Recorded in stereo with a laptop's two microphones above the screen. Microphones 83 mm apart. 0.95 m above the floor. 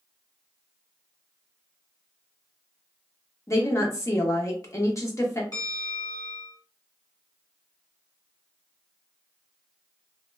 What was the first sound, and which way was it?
A woman speaking, 35° left (ahead or behind).